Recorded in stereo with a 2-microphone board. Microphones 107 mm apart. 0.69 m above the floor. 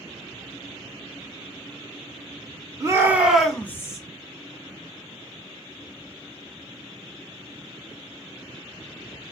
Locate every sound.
2.8 s a shout: 30° right (ahead or behind), 0.9 m; by 4.0 s 30° left (ahead or behind), 0.9 m